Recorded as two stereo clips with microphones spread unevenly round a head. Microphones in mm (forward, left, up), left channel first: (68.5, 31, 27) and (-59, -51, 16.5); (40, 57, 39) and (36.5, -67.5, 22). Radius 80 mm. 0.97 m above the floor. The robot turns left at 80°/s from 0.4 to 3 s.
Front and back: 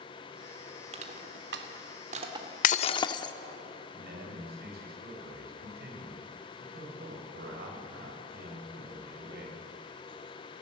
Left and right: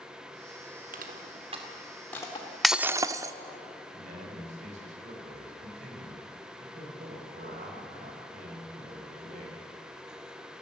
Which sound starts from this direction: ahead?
Breaking glass, at 2.6 s.